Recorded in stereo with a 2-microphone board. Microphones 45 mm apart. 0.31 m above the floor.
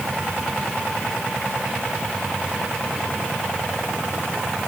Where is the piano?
No piano in this recording.